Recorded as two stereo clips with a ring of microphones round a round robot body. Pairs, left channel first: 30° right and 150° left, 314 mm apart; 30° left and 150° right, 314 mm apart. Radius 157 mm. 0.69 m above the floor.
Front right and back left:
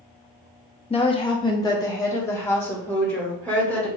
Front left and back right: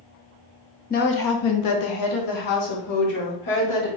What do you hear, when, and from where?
0.9 s a woman speaking: 15° left, 0.5 m; by 3.9 s 55° left, 1.9 m